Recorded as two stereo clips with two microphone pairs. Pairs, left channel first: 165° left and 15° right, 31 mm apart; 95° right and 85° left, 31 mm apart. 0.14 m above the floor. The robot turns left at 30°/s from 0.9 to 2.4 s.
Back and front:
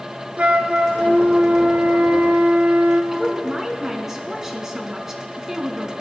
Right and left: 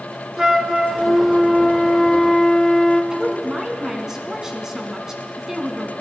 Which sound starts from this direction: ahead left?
A woman speaking, at 3.1 s.